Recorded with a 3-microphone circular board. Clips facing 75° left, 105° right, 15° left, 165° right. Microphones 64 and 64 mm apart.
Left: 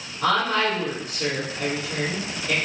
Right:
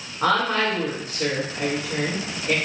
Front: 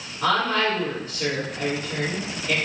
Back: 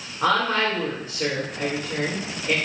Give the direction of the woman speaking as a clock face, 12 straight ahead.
4 o'clock.